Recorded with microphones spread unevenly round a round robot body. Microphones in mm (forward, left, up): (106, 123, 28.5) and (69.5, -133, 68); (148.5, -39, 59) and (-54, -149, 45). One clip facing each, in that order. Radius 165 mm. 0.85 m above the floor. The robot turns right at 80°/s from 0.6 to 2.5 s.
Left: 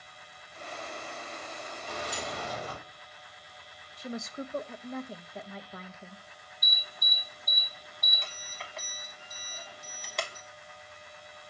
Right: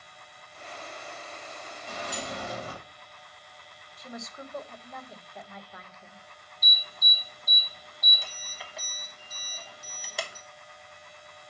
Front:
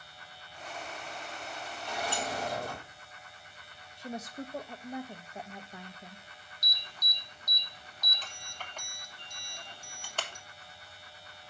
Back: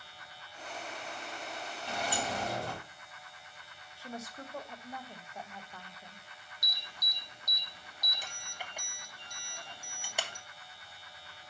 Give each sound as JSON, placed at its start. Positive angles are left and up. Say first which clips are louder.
{"t": 1.9, "sound": "a sliding door", "louder": "right 1 dB, even", "azimuth_deg": -170, "distance_m": 4.5}
{"t": 4.0, "sound": "a woman speaking", "louder": "left 5 dB, front 5 dB", "azimuth_deg": 95, "distance_m": 0.6}
{"t": 6.6, "sound": "an alarm", "louder": "right 1 dB, front 1 dB", "azimuth_deg": 160, "distance_m": 0.9}